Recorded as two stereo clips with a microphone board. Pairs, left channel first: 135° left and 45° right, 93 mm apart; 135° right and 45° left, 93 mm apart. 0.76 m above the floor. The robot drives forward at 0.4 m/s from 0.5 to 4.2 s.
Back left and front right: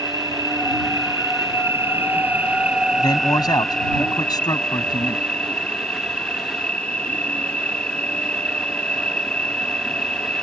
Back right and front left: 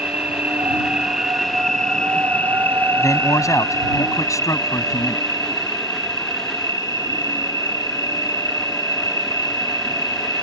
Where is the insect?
25° right; by 10.4 s 155° right.